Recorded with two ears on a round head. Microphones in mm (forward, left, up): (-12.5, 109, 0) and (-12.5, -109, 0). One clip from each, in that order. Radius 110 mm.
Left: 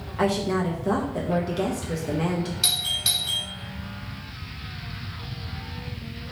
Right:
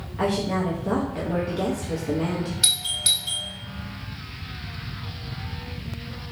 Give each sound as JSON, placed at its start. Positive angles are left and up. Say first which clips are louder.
{"t": 0.2, "sound": "a woman speaking", "louder": "left 1 dB", "side_deg": 20, "distance_m": 0.8}
{"t": 2.6, "sound": "a doorbell", "louder": "right 2 dB", "side_deg": -10, "distance_m": 1.3}